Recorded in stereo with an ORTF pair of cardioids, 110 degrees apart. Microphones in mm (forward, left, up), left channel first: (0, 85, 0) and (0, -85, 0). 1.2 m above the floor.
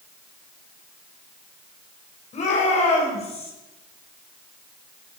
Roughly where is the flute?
No flute in this recording.